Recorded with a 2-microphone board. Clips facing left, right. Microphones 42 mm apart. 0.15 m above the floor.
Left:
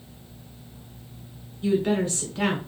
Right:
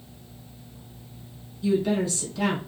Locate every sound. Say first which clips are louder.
1.6 s a woman speaking: left 1 dB; 40° left (ahead or behind), 1.4 m